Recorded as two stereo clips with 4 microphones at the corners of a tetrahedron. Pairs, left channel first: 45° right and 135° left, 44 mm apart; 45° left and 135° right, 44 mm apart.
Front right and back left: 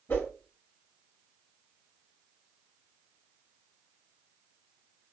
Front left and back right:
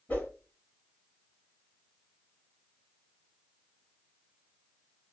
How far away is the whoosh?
About 5.5 m.